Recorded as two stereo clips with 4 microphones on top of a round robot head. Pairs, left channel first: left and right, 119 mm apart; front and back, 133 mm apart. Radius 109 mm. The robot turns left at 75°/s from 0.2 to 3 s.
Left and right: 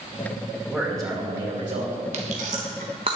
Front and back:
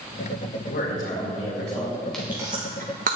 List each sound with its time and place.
0.7 s a man speaking: 5° right, 2.5 m; by 2.0 s 105° right, 2.5 m
2.1 s chewing: 85° right, 1.0 m; by 3.2 s 150° right, 1.0 m